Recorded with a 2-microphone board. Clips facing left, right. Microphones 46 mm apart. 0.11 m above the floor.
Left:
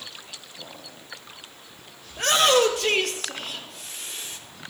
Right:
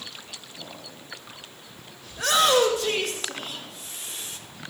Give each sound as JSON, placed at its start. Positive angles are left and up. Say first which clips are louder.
{"t": 2.1, "sound": "a shout", "louder": "left 1 dB", "side_deg": 55, "distance_m": 2.5}